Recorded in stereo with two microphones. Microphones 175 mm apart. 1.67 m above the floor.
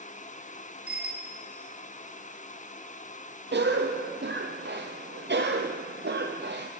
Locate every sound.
0.9 s a bicycle bell: 5° right (ahead or behind), 2 m
3.5 s a cough: 85° right, 0.7 m